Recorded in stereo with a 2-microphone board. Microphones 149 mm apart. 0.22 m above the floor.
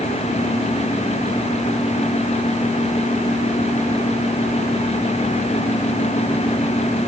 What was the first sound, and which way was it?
Only background noise.